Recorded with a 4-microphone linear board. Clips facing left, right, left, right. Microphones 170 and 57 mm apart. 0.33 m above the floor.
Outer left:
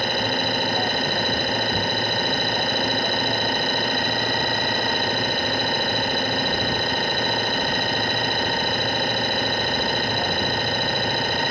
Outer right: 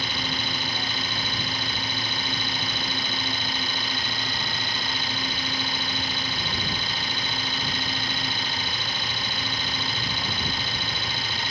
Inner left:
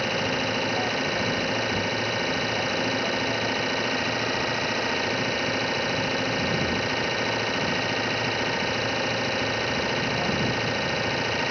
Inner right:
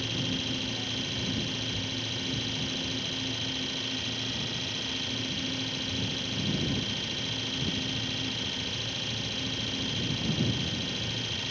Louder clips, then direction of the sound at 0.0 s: Outer left 8 dB, inner left 8 dB; 55° left (ahead or behind).